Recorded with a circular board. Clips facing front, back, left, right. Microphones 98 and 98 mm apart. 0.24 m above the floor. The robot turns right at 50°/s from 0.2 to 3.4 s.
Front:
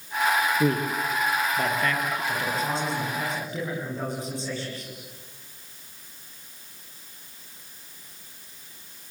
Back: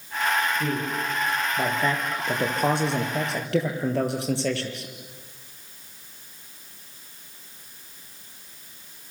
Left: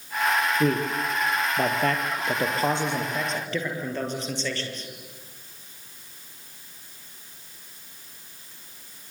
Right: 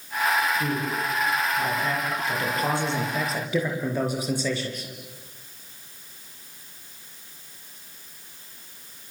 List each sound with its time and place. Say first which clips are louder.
0.6 s a man speaking: front 3 dB, left 3 dB; 50° left, 5.5 m; by 4.9 s 170° right, 5.5 m